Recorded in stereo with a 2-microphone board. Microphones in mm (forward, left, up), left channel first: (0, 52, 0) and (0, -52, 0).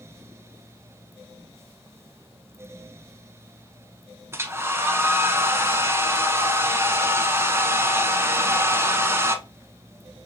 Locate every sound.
4.3 s a hair dryer: 25° right (ahead or behind), 0.6 m